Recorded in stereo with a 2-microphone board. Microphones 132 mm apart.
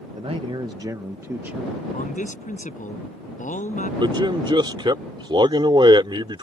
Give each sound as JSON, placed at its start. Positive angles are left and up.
{"t": 0.1, "sound": "a man speaking", "side_deg": -50}
{"t": 1.9, "sound": "a man speaking", "side_deg": 75}
{"t": 4.0, "sound": "a man speaking", "side_deg": -35}